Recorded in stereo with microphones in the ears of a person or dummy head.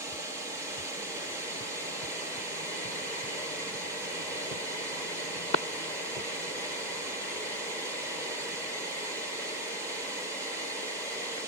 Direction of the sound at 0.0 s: 15° right (ahead or behind).